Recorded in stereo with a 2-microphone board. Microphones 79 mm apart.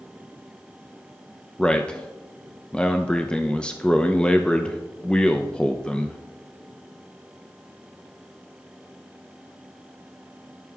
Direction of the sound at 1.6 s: 10° left (ahead or behind).